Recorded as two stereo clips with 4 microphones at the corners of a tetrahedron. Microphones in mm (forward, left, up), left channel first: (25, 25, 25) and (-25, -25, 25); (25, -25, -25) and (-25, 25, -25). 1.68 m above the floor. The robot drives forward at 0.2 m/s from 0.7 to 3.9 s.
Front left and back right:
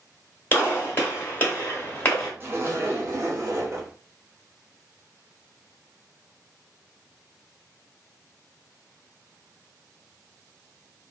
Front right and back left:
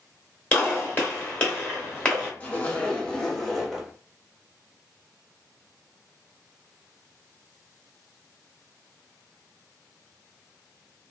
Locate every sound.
0.5 s a gunshot: 10° left, 1.5 m; by 2.3 s 15° left, 1.3 m
2.4 s a zipper: 105° right, 0.7 m; by 3.9 s 135° right, 0.8 m